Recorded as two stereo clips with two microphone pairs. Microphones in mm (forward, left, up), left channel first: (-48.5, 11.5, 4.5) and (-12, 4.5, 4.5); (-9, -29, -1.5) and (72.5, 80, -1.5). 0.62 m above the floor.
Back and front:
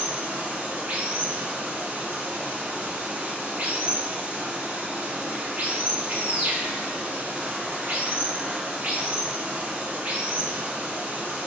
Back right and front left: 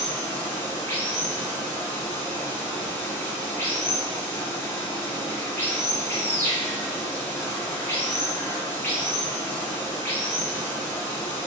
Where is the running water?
55° right, 0.8 m.